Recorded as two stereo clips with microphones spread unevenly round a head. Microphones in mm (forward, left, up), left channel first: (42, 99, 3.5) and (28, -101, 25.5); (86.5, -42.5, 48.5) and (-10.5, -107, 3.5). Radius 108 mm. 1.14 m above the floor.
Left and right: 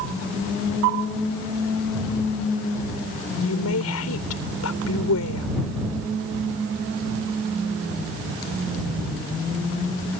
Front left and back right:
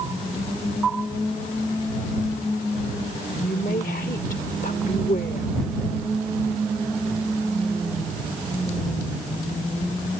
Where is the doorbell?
No doorbell in this recording.